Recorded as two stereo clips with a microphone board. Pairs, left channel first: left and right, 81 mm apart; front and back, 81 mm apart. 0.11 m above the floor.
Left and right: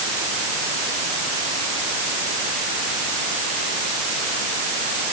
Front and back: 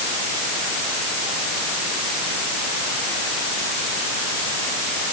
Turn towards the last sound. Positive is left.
No sound to turn to.